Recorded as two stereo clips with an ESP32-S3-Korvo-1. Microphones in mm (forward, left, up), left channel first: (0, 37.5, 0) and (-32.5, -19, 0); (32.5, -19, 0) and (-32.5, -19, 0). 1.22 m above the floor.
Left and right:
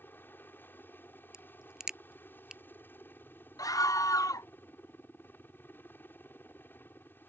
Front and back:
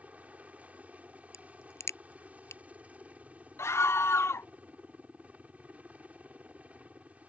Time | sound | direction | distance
0.0 | a helicopter | 115° left | ?
1.3 | a crack | 40° right | ?
3.6 | a scream | 40° left | ?